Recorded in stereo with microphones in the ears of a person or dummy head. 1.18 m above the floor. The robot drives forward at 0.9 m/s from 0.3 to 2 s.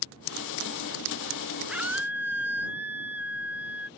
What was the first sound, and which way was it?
A scream, 5° right (ahead or behind).